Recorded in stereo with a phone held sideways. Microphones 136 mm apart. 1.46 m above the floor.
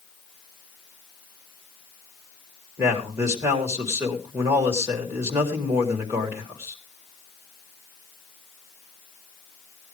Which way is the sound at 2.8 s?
20° right (ahead or behind).